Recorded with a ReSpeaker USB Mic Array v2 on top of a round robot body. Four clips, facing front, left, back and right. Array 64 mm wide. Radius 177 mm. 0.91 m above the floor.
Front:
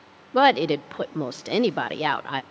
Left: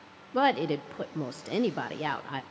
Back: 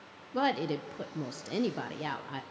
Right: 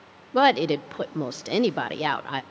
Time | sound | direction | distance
0.3 | a woman speaking | 25° right | 0.5 m